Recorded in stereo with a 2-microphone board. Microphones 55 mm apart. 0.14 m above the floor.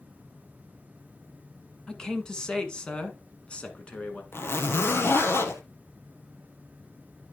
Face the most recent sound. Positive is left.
turn(degrees=50)  # may be behind; listen again after turning